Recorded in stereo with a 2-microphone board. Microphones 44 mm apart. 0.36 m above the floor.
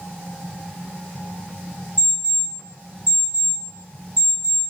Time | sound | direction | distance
2.0 | an alarm clock | 55° left (ahead or behind) | 1.3 m